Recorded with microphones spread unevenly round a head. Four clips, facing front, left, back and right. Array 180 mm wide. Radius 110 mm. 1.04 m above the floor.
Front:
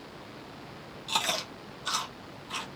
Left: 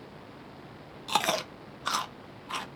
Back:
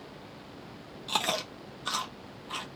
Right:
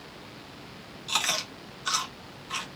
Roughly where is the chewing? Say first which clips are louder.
Left 5 dB, back 1 dB; left.